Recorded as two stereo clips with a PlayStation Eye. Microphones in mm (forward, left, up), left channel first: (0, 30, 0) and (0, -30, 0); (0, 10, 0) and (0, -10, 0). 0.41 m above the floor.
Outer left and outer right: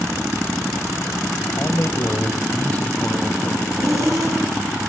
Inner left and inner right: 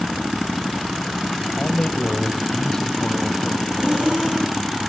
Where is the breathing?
55° right (ahead or behind), 7.5 m.